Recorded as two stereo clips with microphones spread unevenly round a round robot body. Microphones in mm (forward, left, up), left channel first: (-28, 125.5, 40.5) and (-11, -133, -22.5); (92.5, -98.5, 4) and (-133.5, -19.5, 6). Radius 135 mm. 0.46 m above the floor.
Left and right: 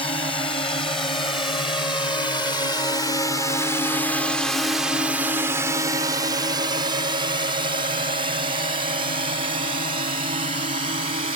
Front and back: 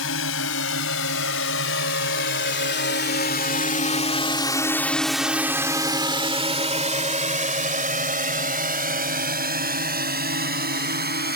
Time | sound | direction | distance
0.0 | a drone | 20° left | ?